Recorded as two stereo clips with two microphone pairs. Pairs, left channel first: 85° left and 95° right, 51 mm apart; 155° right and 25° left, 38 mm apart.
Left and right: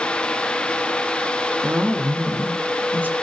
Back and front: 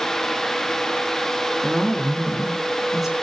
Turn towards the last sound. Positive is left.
turn(degrees=-55)